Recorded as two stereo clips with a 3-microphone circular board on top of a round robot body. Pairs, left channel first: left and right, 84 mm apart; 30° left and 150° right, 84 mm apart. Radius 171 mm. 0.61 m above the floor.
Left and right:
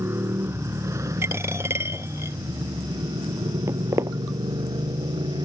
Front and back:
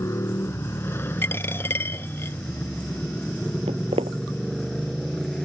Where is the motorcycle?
30° right; by 5.5 s 55° right.